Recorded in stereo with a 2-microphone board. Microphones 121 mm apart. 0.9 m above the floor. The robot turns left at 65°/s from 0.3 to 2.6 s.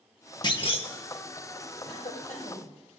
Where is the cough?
105° left, 4 m; by 2.7 s 55° left, 4 m.